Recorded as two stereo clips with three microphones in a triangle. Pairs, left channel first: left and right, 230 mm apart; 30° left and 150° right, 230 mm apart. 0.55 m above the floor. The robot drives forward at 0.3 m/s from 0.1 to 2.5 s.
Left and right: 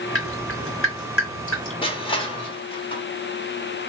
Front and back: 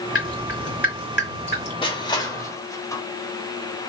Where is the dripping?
60° left, 2.5 m; by 1.7 s 70° left, 2.5 m.